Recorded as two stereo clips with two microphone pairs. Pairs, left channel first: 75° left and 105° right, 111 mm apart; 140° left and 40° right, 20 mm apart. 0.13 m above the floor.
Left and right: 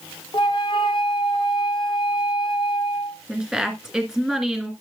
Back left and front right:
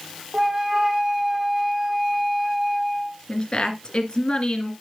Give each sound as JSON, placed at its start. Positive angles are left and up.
{"t": 0.3, "sound": "a flute", "azimuth_deg": 30, "distance_m": 1.0}
{"t": 3.3, "sound": "a woman speaking", "azimuth_deg": 170, "distance_m": 2.0}